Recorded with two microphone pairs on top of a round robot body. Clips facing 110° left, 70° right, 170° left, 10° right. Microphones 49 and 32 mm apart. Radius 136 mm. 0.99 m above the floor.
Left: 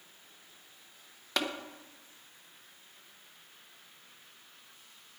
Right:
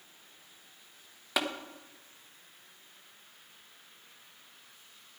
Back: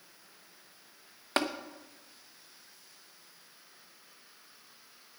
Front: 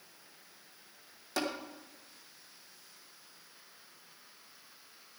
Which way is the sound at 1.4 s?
150° right.